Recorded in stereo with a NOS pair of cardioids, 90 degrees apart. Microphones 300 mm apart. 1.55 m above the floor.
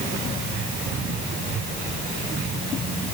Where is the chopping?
No chopping in this recording.